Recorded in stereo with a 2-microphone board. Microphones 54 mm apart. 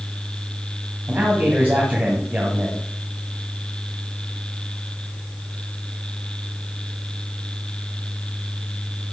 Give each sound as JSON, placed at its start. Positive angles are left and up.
{"t": 1.1, "sound": "a man speaking", "side_deg": -35, "distance_m": 1.8}